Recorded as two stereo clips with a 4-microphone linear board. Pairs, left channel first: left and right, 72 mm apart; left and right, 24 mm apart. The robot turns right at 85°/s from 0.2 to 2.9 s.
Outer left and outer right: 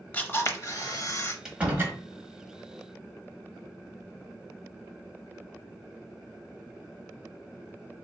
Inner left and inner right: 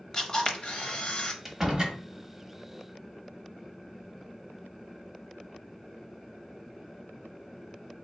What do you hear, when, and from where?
0.1 s a camera shutter: 30° left, 0.6 m; by 1.4 s 130° left, 0.6 m
1.4 s a door slam: 175° right, 1.2 m; by 2.0 s 130° right, 1.2 m